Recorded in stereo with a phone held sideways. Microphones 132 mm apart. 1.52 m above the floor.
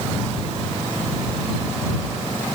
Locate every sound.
Only background noise.